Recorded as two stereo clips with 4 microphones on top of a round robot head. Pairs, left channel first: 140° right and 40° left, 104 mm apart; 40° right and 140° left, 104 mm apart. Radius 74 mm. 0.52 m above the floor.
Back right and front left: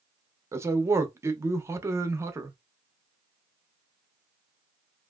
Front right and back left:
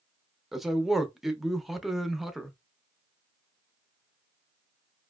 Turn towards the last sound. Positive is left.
turn(degrees=55)